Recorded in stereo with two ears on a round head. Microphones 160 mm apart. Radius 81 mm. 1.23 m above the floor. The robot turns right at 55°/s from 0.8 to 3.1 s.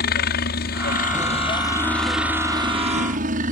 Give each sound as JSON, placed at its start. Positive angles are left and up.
{"t": 0.0, "sound": "a helicopter", "azimuth_deg": 110}